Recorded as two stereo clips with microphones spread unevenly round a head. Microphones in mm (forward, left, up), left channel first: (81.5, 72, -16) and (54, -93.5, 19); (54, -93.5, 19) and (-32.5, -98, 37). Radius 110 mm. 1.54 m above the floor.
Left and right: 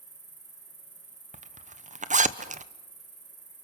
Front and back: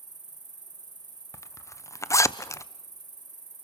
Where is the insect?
145° right, 6.5 m.